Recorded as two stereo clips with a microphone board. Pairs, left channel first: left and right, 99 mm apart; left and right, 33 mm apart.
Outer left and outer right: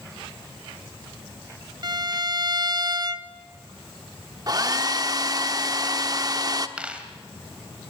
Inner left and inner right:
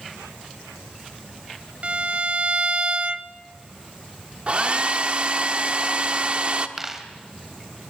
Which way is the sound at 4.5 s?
40° right (ahead or behind).